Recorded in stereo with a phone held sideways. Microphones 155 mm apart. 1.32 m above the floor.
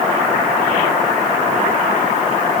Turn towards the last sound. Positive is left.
No sound to turn to.